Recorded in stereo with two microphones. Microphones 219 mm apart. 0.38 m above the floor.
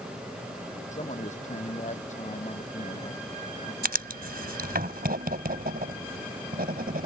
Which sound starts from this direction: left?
A man speaking, at 0.9 s.